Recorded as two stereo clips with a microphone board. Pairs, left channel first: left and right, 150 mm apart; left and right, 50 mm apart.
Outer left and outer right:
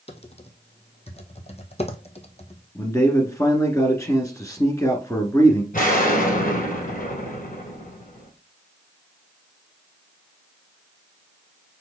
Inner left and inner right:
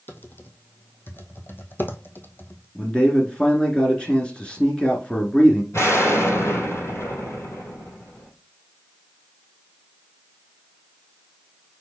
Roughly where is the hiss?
No hiss in this recording.